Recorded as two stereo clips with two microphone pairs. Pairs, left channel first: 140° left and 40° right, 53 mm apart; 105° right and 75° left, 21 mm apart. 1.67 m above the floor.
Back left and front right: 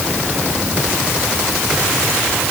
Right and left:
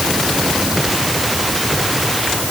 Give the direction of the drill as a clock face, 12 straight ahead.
No drill in this recording.